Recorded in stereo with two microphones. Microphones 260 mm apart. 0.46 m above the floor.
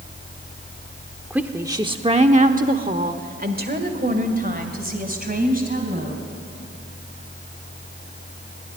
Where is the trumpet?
I don't hear a trumpet.